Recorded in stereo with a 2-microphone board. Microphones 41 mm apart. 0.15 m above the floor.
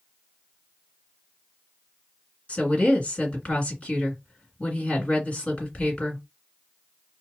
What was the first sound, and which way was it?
A woman speaking, 30° left (ahead or behind).